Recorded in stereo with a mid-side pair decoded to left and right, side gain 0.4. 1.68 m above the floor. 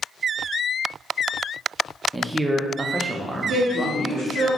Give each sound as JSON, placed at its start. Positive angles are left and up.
{"t": 2.1, "sound": "a man speaking", "azimuth_deg": -20, "distance_m": 0.6}
{"t": 3.5, "sound": "a woman speaking", "azimuth_deg": -70, "distance_m": 1.6}